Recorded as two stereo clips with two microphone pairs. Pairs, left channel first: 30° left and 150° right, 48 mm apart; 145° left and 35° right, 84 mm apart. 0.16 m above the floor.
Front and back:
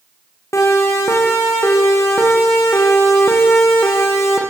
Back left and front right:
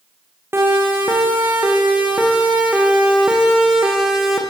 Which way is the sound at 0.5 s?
25° left.